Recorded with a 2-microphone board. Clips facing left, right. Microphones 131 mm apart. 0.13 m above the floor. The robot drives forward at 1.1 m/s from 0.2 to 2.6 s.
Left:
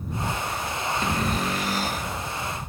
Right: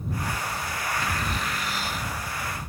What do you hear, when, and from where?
1.0 s a cupboard door: 35° left (ahead or behind); by 2.1 s 45° left (ahead or behind)